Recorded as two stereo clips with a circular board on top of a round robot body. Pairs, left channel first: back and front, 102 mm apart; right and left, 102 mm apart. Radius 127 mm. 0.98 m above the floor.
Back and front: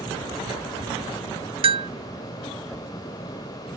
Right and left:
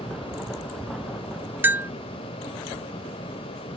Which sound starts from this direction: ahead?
A bell, at 1.6 s.